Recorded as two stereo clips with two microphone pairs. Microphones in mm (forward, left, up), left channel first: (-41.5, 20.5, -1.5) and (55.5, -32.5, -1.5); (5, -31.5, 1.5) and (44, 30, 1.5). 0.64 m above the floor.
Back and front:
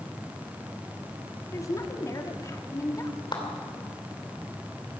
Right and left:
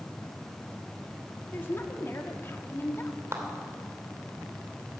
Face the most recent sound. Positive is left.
turn(degrees=105)